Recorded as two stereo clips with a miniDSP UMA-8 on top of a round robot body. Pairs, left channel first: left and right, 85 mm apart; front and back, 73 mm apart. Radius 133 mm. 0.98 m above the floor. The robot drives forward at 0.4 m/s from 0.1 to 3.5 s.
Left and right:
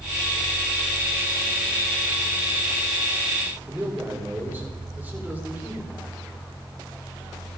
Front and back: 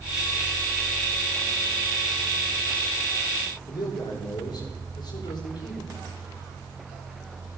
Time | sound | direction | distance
3.6 | a man speaking | 20° right | 4.5 m